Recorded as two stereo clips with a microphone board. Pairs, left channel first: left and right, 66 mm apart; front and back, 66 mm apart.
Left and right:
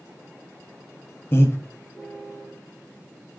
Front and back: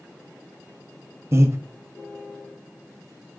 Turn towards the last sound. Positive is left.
turn(degrees=140)